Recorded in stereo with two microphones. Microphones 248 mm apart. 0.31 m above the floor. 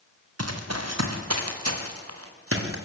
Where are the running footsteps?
80° right, 3 m; by 2.8 s 60° right (ahead or behind), 4 m.